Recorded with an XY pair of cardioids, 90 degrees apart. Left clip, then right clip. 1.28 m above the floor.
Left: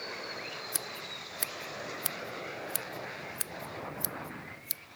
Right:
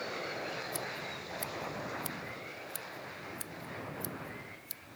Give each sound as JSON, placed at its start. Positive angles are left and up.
{"t": 0.7, "sound": "scissors", "azimuth_deg": 70}